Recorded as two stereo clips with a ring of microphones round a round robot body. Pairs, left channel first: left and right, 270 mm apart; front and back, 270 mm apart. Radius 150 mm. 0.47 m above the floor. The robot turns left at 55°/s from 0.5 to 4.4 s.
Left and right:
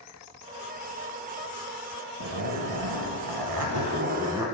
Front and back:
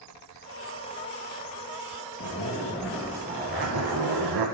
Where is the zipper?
50° right, 0.6 m; by 4.5 s 170° right, 0.6 m.